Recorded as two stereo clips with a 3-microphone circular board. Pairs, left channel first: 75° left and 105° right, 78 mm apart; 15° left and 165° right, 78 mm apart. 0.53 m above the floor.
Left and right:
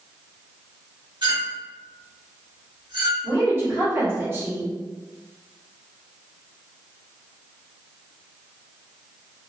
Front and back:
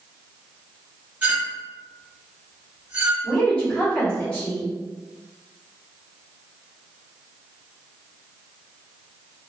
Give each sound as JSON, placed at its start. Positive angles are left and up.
{"t": 1.2, "sound": "a clink", "azimuth_deg": -95, "distance_m": 1.4}
{"t": 3.2, "sound": "a woman speaking", "azimuth_deg": -55, "distance_m": 1.8}